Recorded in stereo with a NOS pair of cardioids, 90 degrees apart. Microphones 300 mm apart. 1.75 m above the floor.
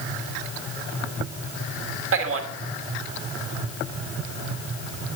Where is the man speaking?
45° right, 2 m.